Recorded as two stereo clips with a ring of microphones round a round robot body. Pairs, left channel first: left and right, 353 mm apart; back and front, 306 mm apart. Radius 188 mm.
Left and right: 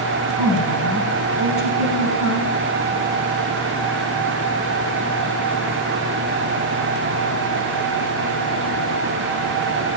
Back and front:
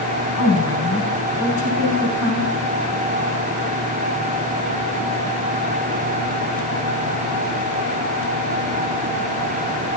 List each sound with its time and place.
0.4 s a woman speaking: 115° left, 5.5 m